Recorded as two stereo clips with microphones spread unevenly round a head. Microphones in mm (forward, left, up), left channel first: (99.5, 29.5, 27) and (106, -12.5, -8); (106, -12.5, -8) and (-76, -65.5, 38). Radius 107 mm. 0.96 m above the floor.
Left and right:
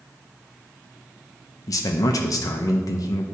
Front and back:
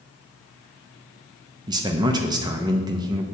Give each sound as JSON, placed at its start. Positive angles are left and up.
{"t": 1.7, "sound": "a man speaking", "azimuth_deg": 120, "distance_m": 0.6}